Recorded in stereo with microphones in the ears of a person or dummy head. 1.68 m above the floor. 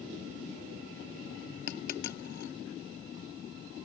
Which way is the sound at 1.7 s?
55° left (ahead or behind).